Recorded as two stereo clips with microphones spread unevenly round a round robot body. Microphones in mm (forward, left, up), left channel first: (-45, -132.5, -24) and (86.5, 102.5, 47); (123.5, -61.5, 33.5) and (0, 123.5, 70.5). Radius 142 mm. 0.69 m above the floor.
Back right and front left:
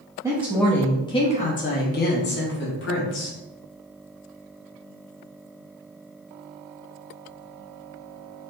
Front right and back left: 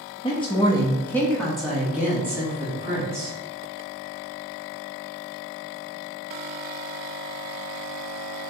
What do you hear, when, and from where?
0.2 s a woman speaking: 35° right, 0.7 m; by 3.4 s 155° right, 1.5 m